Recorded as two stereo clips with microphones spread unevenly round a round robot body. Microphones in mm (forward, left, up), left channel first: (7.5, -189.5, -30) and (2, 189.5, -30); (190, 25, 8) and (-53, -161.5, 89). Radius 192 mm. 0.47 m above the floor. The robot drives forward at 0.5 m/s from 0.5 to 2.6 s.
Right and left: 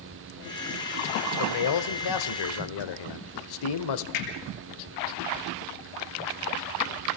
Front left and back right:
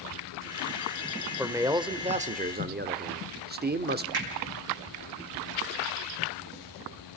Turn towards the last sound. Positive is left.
turn(degrees=-100)